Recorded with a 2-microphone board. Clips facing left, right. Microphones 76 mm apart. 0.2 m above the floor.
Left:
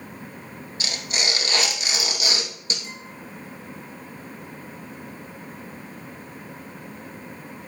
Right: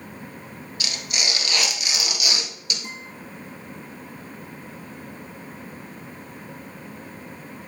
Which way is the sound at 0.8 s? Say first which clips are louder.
Left 2 dB; 30° left (ahead or behind).